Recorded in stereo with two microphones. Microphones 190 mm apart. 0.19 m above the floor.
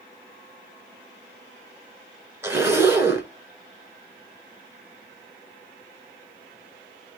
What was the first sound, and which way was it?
A zipper, 15° right (ahead or behind).